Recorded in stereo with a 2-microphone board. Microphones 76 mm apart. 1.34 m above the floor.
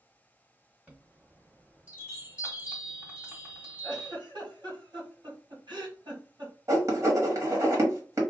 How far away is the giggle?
About 1.6 m.